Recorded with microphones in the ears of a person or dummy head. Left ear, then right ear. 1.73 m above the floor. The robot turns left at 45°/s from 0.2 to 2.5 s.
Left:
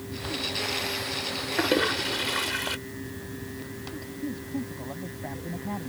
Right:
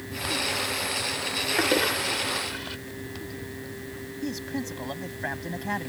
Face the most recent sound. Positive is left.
turn(degrees=-70)  # may be behind; listen again after turning